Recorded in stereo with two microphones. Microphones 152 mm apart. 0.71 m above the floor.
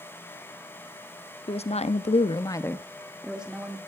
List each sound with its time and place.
1.5 s a woman speaking: 40° left (ahead or behind), 1.0 m; by 3.8 s 10° right (ahead or behind), 1.6 m